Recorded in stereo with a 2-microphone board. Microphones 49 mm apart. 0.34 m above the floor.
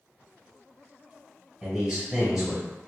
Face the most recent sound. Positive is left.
turn(degrees=-10)  # may be behind; listen again after turning